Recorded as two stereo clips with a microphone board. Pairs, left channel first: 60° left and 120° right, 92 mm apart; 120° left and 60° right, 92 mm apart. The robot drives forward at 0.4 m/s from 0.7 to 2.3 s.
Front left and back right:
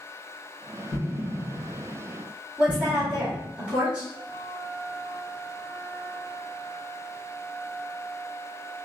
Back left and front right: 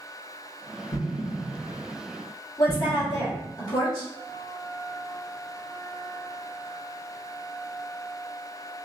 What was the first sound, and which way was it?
An explosion, 125° left.